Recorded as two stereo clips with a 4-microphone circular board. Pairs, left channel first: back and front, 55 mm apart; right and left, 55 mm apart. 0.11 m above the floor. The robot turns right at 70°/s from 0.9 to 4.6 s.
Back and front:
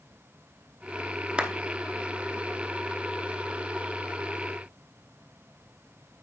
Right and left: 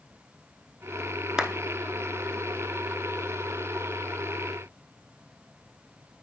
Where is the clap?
35° left, 0.9 m; by 1.5 s 45° left, 0.9 m.